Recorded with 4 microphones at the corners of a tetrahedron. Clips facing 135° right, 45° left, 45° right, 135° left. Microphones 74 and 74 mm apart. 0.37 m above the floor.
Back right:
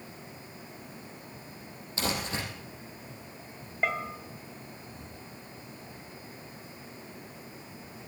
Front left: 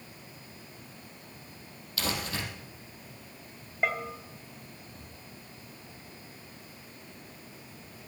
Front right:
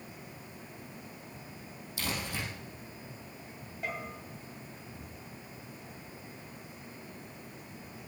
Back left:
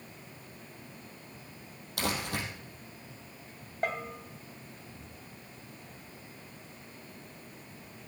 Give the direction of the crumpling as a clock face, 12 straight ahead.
7 o'clock.